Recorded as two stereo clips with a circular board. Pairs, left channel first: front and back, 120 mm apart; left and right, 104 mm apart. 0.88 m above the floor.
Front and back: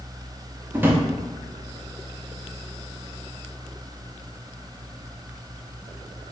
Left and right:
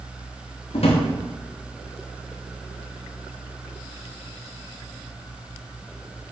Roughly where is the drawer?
Left.